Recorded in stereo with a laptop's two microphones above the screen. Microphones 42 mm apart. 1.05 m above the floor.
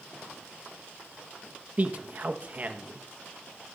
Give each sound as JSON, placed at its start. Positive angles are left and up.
{"t": 1.8, "sound": "a man speaking", "side_deg": -35, "distance_m": 1.3}